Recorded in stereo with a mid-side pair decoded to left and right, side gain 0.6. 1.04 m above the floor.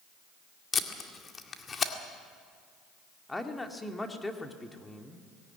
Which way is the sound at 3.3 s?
10° left.